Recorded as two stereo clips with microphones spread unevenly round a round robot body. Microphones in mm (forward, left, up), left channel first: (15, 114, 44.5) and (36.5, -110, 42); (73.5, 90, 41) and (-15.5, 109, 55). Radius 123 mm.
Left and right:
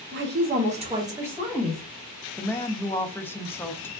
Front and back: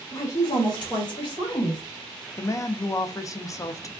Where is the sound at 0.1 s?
60° right, 1.1 m; by 1.8 s 10° left, 1.6 m.